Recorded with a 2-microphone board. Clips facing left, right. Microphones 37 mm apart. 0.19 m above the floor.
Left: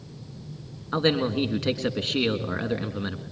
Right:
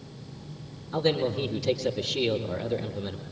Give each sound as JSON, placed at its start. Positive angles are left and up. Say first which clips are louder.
{"t": 0.9, "sound": "a man speaking", "louder": "left 2 dB", "side_deg": 55, "distance_m": 2.5}